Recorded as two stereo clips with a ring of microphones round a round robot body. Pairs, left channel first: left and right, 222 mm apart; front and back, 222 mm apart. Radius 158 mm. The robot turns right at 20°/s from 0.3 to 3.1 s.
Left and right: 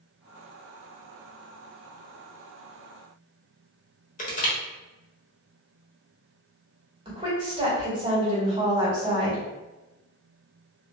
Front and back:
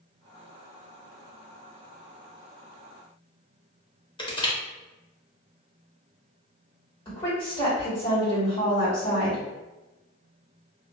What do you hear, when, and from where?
4.2 s crushing: 60° left, 0.9 m
7.0 s a woman speaking: 45° right, 1.6 m